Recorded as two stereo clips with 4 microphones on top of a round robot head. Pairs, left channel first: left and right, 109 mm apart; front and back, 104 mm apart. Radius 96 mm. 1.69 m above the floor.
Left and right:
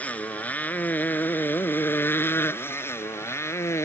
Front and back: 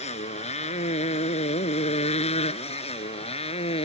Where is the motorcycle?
15° left; by 3.9 s 25° left.